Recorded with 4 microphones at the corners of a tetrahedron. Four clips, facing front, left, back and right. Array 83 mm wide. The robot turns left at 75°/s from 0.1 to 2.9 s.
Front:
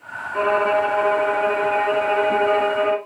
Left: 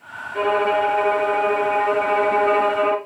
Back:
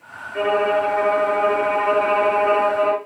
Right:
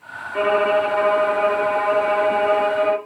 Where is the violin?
55° right, 3 m; by 3.0 s 115° left, 3 m.